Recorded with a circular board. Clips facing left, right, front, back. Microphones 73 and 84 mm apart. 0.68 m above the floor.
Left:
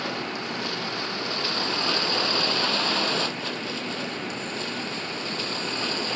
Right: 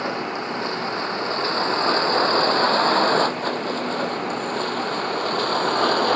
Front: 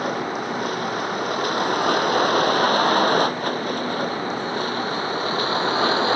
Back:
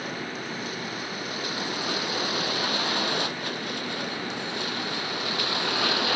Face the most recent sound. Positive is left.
turn(degrees=-60)